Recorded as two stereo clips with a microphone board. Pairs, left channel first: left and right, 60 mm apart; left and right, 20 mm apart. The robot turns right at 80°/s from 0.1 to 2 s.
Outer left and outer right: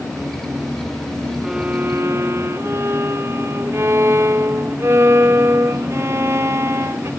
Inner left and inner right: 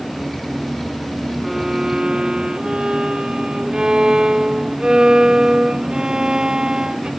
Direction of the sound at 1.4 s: 175° right.